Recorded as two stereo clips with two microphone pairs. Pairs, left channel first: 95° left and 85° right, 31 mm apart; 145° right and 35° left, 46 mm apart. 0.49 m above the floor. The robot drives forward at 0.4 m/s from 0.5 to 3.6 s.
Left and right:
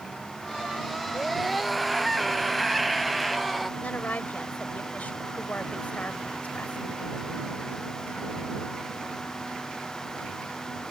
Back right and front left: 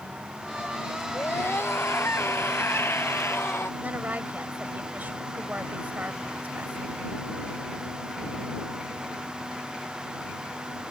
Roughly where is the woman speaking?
Left.